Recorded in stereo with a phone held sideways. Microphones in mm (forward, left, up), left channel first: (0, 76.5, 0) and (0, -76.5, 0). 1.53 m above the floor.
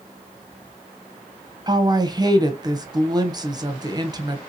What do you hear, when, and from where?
1.7 s a woman speaking: 25° right (ahead or behind), 0.6 m